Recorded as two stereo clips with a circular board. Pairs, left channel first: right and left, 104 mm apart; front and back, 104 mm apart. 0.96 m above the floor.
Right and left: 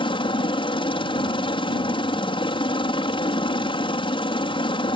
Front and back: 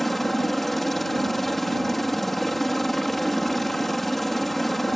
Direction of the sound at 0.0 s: 90° right.